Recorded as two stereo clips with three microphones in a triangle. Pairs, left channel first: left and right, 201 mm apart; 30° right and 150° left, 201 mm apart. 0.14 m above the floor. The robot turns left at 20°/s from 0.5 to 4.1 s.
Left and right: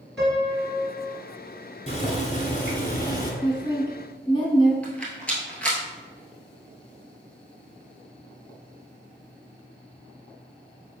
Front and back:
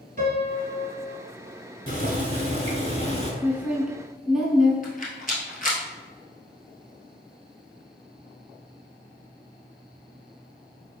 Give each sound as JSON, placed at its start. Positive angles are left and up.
{"t": 0.2, "sound": "a piano", "azimuth_deg": 175, "distance_m": 1.2}
{"t": 1.9, "sound": "boiling", "azimuth_deg": 130, "distance_m": 1.0}
{"t": 3.4, "sound": "a woman speaking", "azimuth_deg": 80, "distance_m": 1.1}
{"t": 4.8, "sound": "a rattle", "azimuth_deg": 5, "distance_m": 1.1}